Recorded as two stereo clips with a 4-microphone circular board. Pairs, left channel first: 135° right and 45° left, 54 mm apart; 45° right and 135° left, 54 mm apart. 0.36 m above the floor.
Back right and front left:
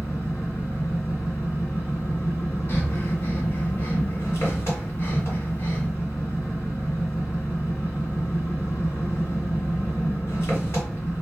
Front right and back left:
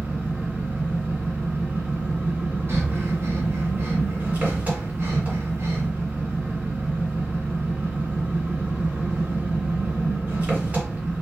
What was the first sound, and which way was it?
An engine running, 170° right.